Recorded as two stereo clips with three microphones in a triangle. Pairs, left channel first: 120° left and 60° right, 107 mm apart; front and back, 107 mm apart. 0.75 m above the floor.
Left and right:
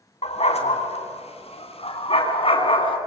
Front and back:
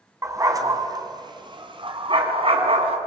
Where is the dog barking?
115° left, 3 m; by 3.0 s 155° left, 3.5 m.